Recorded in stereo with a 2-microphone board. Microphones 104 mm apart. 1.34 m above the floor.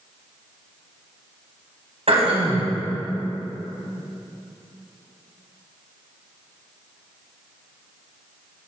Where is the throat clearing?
75° right (ahead or behind), 3 m.